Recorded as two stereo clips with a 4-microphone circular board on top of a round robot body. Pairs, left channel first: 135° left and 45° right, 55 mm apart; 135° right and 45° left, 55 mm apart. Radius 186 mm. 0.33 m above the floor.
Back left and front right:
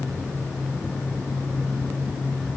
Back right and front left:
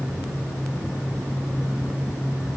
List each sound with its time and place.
Only background noise.